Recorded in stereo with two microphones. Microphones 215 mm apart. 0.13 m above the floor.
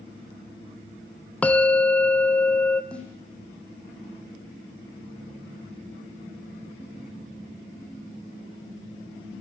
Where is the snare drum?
5° left (ahead or behind), 8 m.